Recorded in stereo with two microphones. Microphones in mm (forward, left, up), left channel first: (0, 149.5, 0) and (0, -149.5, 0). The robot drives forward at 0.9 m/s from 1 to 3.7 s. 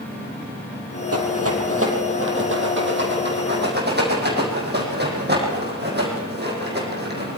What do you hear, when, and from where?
1.1 s a rattle: 50° right (ahead or behind), 4 m; by 7.4 s 35° right (ahead or behind), 5.5 m